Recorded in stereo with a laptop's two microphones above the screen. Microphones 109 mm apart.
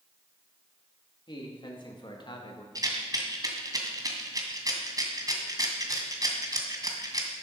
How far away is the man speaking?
About 2.5 m.